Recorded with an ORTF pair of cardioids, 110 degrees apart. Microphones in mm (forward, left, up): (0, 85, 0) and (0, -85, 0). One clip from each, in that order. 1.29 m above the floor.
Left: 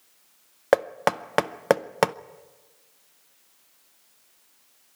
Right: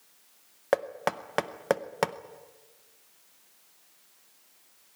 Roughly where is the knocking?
Ahead left.